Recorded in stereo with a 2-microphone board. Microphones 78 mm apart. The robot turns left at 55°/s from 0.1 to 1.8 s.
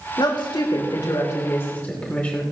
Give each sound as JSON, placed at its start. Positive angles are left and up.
{"t": 0.2, "sound": "a woman speaking", "azimuth_deg": 110, "distance_m": 2.5}